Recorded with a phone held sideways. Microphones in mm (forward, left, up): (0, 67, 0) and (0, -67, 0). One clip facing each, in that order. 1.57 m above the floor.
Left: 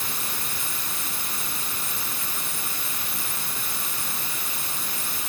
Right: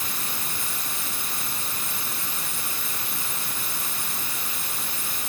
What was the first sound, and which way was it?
Only background noise.